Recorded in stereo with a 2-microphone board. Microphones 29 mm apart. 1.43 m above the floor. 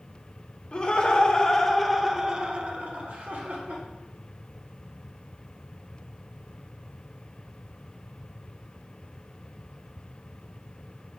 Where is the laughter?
40° left (ahead or behind), 0.9 m; by 3.8 s 75° right (ahead or behind), 1.0 m.